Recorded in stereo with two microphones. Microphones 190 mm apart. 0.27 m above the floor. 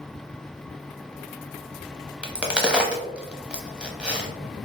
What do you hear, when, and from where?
2.2 s a crack: 5° right (ahead or behind), 0.6 m